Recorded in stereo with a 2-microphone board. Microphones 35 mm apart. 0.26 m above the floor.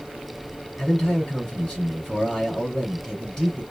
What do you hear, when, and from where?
0.8 s a man speaking: 15° left (ahead or behind), 3.5 m